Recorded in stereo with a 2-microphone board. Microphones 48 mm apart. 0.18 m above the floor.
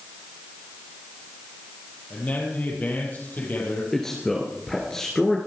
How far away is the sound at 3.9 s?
About 2.5 m.